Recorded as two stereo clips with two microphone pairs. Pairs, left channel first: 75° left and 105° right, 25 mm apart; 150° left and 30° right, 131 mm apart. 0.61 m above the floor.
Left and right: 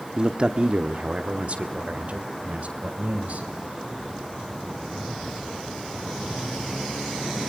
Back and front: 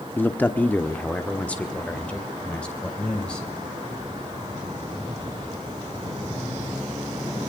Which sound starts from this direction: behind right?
A man speaking, at 0.2 s.